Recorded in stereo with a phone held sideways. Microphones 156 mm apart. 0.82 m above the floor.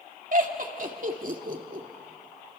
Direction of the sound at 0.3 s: 60° right (ahead or behind).